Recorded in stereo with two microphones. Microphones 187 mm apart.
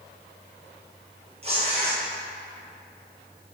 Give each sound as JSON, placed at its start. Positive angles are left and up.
{"t": 1.4, "sound": "tearing paper", "side_deg": -35, "distance_m": 2.5}